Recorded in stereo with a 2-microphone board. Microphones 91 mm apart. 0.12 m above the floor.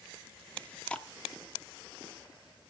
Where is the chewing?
10° left (ahead or behind), 1.1 m.